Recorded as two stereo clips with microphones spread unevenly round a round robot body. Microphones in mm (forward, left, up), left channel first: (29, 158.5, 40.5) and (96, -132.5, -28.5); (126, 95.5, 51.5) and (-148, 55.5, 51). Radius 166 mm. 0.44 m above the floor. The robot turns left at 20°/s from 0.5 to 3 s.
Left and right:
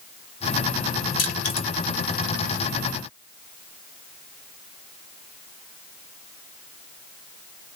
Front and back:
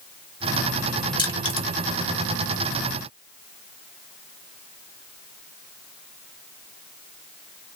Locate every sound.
1.2 s crushing: 75° left, 1.3 m; by 1.7 s 65° left, 1.3 m